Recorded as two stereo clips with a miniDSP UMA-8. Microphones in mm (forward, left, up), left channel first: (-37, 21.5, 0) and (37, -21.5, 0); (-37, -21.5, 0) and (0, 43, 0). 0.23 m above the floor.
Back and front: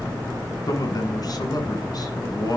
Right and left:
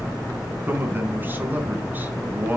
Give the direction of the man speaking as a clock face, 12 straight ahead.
8 o'clock.